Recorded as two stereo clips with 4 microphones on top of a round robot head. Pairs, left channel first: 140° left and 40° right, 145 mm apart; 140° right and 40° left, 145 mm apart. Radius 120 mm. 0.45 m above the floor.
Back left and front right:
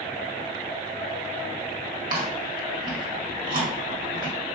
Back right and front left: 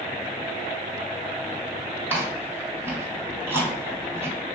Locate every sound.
2.1 s chewing: 35° right, 1.6 m